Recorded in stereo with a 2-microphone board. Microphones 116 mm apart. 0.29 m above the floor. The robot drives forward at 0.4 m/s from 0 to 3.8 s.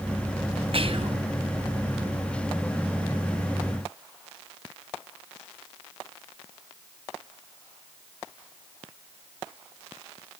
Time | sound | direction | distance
0.7 | whispering | 50° right (ahead or behind) | 1.8 m